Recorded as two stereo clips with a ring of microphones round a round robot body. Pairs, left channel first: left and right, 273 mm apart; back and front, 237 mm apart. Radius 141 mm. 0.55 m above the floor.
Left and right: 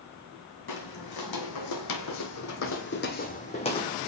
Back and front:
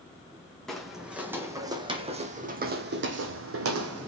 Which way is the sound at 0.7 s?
90° left.